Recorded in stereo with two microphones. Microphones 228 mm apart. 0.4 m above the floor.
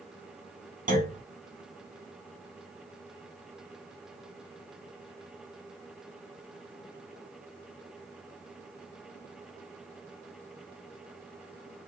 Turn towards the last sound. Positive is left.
turn(degrees=-35)  # may be behind; listen again after turning